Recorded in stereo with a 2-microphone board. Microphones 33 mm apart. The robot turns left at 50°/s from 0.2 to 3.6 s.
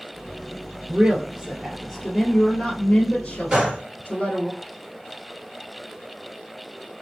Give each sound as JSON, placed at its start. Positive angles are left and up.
{"t": 0.9, "sound": "a woman speaking", "azimuth_deg": -130, "distance_m": 1.4}
{"t": 3.5, "sound": "a gunshot", "side_deg": -20, "distance_m": 2.0}